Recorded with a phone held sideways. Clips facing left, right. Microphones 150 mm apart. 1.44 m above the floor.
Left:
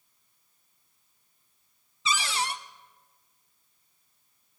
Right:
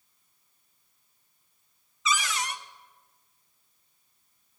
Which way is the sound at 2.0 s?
30° left (ahead or behind).